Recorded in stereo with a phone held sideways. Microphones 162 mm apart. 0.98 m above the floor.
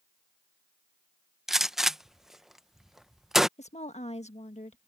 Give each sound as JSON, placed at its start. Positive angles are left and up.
{"t": 1.5, "sound": "a gunshot", "side_deg": 0}
{"t": 3.6, "sound": "a woman speaking", "side_deg": 40}